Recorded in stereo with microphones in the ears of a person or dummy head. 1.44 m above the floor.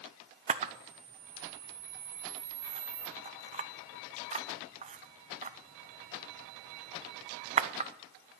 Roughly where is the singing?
I don't hear singing.